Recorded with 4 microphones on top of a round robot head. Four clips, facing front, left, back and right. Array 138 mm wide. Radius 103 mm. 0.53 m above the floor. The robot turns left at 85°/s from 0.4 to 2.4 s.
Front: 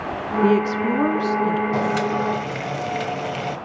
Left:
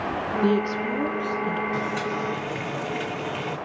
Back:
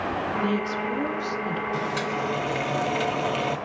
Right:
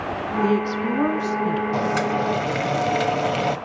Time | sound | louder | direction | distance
0.4 | a woman speaking | right 2 dB, front 8 dB | 20° left | 1.1 m
1.7 | boiling | right 5 dB, front 6 dB | 40° right | 1.2 m